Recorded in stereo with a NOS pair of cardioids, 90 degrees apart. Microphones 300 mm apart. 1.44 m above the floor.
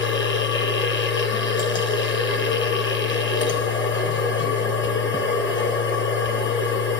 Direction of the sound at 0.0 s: 35° left.